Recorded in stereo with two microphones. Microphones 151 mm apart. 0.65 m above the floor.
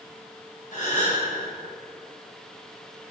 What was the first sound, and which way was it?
A gasp, 60° left (ahead or behind).